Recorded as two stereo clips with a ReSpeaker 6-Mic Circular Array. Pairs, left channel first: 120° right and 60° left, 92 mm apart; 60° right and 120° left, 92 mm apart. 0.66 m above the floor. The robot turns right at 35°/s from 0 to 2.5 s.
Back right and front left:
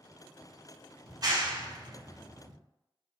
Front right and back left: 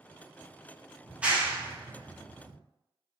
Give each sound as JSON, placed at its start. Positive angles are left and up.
{"t": 1.1, "sound": "a clap", "azimuth_deg": 40, "distance_m": 0.5}